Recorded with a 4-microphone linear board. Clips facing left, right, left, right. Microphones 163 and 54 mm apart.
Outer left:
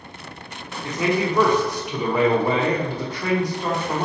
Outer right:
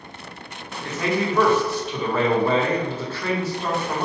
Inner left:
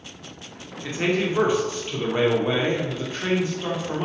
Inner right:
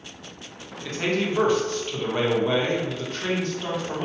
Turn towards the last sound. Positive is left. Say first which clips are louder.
# outer left 2 dB, inner left 2 dB
turn(degrees=15)  # may be behind; listen again after turning